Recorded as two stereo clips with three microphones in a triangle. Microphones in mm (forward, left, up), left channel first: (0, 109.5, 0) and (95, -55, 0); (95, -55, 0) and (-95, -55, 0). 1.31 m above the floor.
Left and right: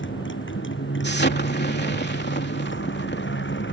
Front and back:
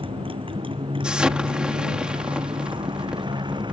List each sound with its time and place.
0.0 s a motorcycle: 120° left; by 3.8 s 115° left
1.0 s an explosion: 95° left